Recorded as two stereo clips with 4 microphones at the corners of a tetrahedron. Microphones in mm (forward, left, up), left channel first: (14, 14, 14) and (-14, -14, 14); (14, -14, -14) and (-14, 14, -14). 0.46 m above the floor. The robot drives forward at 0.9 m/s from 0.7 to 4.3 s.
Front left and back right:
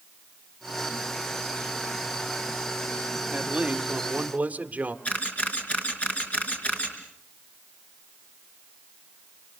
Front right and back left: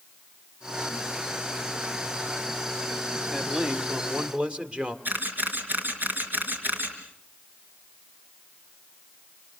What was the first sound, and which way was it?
A man speaking, 160° right.